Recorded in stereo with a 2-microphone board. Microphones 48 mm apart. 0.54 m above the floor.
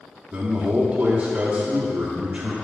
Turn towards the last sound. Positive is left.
turn(degrees=-30)  # may be behind; listen again after turning